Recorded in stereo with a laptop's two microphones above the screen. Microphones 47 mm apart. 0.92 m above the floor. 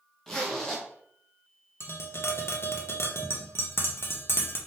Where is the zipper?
10° left (ahead or behind), 0.9 m.